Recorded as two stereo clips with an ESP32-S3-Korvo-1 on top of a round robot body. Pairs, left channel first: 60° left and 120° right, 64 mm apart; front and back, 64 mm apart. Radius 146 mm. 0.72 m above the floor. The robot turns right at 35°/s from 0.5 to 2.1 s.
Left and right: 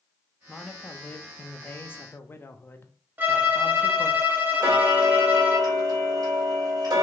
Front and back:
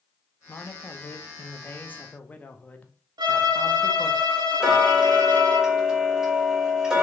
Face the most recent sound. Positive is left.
turn(degrees=-95)